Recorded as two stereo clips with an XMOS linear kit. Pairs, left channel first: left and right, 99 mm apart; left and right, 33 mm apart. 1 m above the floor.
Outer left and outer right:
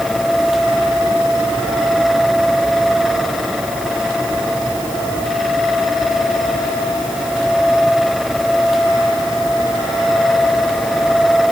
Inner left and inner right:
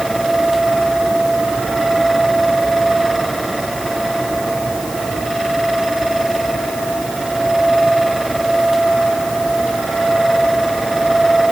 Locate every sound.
Only background noise.